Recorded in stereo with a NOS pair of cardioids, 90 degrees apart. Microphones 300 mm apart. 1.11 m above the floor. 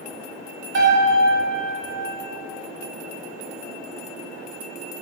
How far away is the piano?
About 1.2 m.